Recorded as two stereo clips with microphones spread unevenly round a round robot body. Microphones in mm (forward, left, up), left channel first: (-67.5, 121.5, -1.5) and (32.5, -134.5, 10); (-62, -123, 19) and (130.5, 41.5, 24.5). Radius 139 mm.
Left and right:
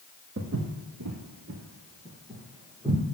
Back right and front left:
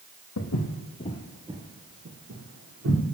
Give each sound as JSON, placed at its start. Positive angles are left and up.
{"t": 0.4, "sound": "footsteps", "azimuth_deg": -115, "distance_m": 1.2}